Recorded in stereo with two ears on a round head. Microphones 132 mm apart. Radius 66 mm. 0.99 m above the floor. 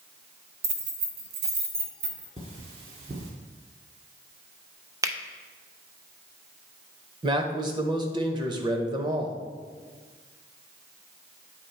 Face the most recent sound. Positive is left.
turn(degrees=-30)  # may be behind; listen again after turning